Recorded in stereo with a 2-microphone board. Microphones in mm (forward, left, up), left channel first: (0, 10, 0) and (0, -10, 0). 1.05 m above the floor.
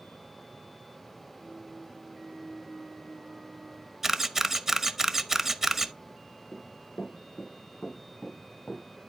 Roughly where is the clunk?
Right.